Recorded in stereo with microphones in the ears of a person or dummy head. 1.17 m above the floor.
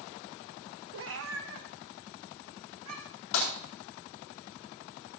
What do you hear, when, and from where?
0.9 s a cat meowing: 65° right (ahead or behind), 0.8 m; by 3.2 s 80° right, 4 m
3.3 s breaking glass: 70° left (ahead or behind), 7.5 m